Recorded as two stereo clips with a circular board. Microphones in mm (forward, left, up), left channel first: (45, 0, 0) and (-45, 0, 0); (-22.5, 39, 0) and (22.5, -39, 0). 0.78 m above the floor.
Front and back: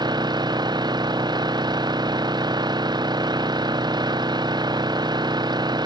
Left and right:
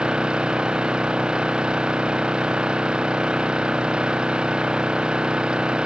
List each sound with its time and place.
0.0 s an engine running: 140° right